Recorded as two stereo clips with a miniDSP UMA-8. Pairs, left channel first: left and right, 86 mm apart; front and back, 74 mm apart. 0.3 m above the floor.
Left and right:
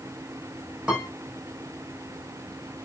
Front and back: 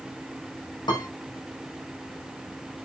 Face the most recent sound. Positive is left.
turn(degrees=-10)